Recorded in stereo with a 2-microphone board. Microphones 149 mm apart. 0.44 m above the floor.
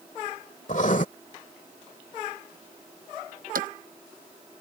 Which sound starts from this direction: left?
Writing, at 0.7 s.